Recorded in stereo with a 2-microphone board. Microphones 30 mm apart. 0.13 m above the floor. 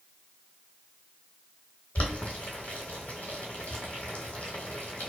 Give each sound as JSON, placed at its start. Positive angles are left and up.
{"t": 1.9, "sound": "boiling", "side_deg": 60, "distance_m": 1.0}